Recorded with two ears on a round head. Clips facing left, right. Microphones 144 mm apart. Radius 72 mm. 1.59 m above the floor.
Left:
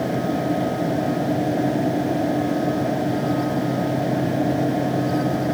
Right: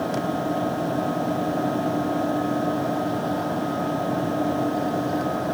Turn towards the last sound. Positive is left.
No sound to turn to.